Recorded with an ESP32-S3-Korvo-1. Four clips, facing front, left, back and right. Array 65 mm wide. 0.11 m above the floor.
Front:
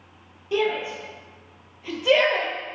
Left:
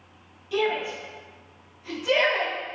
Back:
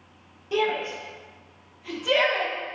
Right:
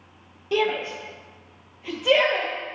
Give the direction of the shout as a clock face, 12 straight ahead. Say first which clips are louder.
Right 2 dB, front 1 dB; 3 o'clock.